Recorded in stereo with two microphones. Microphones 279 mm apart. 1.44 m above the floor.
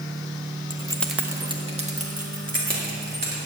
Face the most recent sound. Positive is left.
turn(degrees=-35)  # may be behind; listen again after turning